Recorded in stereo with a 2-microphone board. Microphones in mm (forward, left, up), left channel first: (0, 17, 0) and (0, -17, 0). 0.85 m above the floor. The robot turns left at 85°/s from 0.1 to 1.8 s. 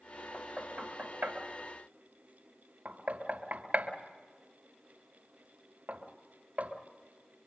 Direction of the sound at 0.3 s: 5° right (ahead or behind).